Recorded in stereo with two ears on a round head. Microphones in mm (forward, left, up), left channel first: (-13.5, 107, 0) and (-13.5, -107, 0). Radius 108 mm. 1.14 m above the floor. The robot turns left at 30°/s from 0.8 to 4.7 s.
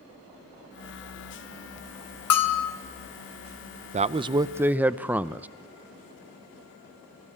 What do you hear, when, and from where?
2.3 s a bell: 65° left (ahead or behind), 1.6 m; by 2.7 s 75° left (ahead or behind), 1.6 m
3.9 s a man speaking: 30° right (ahead or behind), 0.5 m; by 5.5 s 5° right (ahead or behind), 0.5 m